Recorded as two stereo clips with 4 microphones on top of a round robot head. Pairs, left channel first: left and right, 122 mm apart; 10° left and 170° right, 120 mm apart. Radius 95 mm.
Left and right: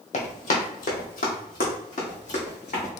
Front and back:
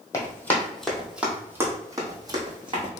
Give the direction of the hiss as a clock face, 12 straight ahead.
I don't hear a hiss.